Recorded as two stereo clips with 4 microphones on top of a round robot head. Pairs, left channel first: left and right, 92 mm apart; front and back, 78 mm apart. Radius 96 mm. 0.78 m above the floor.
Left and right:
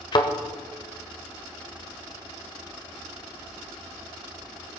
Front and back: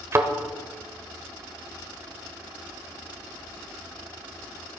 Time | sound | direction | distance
0.1 | a thud | 125° left | 0.8 m